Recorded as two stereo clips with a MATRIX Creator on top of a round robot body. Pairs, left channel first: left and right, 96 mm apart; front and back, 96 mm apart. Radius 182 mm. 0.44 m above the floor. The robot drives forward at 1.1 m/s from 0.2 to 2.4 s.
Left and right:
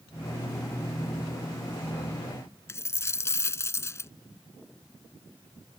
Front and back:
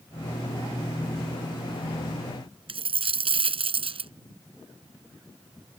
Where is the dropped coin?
155° left.